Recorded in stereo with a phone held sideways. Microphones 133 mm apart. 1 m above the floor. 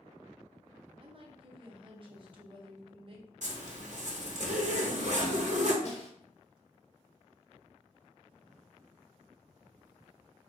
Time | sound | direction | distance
1.0 | a woman speaking | 40° right (ahead or behind) | 0.7 m
3.4 | a zipper | 60° right (ahead or behind) | 0.7 m
5.8 | a snare drum | 55° left (ahead or behind) | 0.8 m